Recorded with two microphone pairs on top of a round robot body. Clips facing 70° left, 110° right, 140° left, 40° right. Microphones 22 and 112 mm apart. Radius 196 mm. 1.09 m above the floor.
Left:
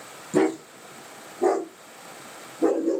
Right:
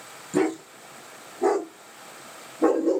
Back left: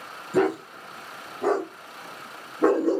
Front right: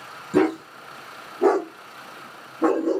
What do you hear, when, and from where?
0.3 s a dog barking: 15° right, 1.4 m; by 3.0 s 155° right, 0.6 m